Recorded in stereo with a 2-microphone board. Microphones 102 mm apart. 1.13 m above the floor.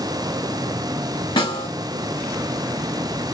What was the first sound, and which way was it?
A snare drum, 50° left (ahead or behind).